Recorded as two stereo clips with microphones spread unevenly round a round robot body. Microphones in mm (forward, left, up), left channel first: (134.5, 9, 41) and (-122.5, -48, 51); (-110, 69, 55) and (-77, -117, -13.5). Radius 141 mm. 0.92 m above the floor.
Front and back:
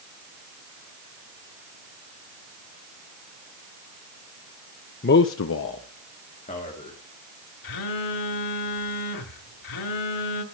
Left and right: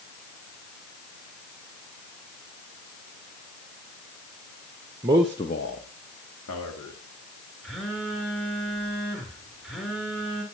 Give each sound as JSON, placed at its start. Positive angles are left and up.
{"t": 5.0, "sound": "a man speaking", "azimuth_deg": -40, "distance_m": 0.7}
{"t": 7.6, "sound": "a phone buzzing", "azimuth_deg": 15, "distance_m": 1.5}